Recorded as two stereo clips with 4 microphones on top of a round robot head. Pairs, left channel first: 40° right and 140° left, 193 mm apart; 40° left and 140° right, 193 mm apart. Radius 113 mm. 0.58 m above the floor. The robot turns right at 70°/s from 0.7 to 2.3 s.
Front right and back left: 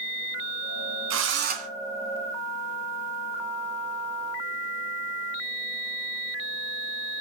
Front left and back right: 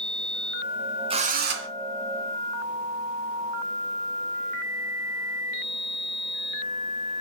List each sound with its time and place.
1.1 s a drill: 155° left, 2.5 m; by 1.7 s 165° right, 2.5 m